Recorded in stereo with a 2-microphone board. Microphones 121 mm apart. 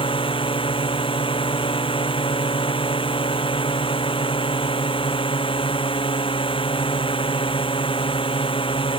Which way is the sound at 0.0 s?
45° left (ahead or behind).